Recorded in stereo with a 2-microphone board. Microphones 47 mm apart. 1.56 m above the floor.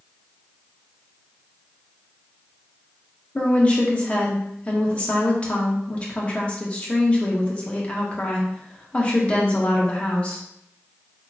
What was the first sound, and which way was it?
A woman speaking, 25° left (ahead or behind).